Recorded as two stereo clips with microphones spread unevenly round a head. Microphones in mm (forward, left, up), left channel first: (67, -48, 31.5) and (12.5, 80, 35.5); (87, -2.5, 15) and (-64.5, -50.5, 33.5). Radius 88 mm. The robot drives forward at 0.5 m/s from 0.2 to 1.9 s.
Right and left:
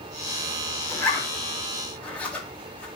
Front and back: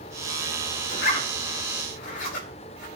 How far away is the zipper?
About 5.5 m.